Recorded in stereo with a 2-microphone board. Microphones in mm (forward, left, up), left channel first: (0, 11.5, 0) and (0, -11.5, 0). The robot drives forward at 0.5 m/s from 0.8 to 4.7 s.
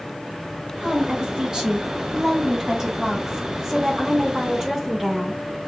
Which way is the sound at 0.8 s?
40° right (ahead or behind).